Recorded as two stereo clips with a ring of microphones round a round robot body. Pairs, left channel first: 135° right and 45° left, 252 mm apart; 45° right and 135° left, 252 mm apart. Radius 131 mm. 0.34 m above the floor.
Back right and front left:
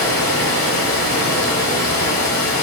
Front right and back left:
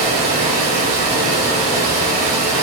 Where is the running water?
170° left, 1.4 m.